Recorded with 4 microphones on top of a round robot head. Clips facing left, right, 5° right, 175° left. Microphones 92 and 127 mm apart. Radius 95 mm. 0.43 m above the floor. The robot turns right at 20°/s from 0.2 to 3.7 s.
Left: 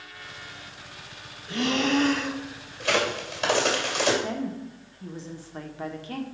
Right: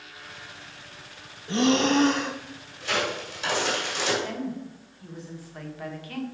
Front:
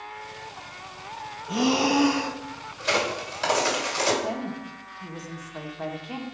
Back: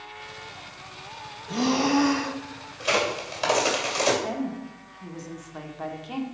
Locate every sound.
1.5 s breathing: 70° right, 0.6 m; by 2.4 s 55° right, 0.6 m
2.8 s a crack: 90° left, 3 m; by 4.1 s 110° left, 3 m
4.2 s a woman speaking: 85° left, 1.2 m